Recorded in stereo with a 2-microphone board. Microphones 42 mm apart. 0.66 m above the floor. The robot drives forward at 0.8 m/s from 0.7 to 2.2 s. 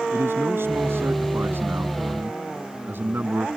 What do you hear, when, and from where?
0.1 s a man speaking: 65° right (ahead or behind); by 3.5 s 55° right (ahead or behind)